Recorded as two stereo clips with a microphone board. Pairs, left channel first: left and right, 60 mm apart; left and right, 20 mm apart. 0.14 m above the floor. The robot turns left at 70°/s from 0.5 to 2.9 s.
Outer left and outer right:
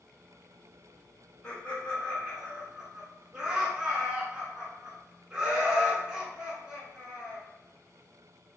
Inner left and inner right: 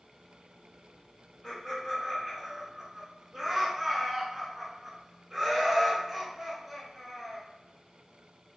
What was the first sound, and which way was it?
Laughter, 25° left (ahead or behind).